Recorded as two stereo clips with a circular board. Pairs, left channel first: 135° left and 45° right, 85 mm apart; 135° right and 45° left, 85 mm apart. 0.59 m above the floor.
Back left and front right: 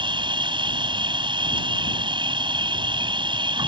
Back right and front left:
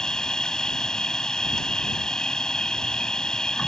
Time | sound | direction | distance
0.0 | an insect | 55° right | ?